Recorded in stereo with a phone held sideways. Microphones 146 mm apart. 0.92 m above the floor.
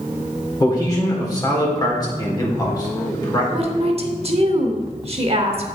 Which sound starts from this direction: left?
A man speaking, at 0.6 s.